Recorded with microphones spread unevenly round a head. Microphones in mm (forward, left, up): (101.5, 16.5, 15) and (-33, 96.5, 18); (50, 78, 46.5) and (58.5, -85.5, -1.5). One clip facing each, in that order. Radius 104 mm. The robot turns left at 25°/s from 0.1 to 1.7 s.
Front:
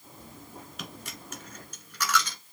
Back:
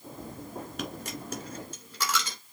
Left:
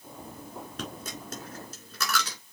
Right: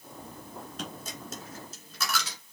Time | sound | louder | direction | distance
0.8 | a dropped coin | back 7 dB, left 2 dB | 115° left | 1.8 m